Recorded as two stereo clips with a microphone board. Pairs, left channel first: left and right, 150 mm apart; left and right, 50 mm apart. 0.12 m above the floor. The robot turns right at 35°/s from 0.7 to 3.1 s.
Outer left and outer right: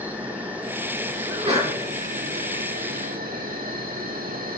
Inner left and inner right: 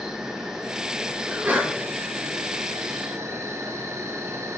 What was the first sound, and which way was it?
An insect, 170° right.